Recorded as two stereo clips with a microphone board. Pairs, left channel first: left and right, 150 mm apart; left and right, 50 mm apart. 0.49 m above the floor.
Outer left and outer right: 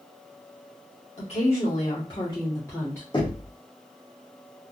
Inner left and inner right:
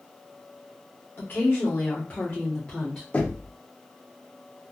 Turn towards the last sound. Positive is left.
turn(degrees=30)  # may be behind; listen again after turning